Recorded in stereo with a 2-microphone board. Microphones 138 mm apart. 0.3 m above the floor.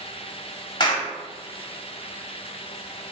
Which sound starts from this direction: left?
A clap, at 0.8 s.